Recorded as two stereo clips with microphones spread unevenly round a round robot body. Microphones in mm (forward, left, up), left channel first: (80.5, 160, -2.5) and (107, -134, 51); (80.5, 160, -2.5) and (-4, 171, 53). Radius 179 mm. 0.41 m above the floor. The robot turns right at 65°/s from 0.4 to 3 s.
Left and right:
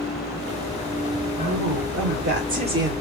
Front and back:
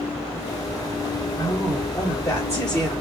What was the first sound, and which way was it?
A woman speaking, 95° right.